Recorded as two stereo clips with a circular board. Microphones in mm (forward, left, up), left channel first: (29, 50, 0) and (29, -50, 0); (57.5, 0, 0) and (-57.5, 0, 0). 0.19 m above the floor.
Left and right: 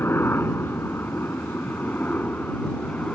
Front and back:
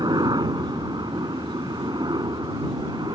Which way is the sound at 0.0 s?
145° left.